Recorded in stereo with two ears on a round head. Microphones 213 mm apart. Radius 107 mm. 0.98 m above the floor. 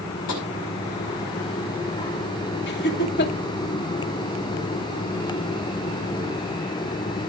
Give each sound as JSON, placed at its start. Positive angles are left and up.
{"t": 0.3, "sound": "tapping", "side_deg": 80, "distance_m": 5.5}
{"t": 2.7, "sound": "laughter", "side_deg": 45, "distance_m": 2.5}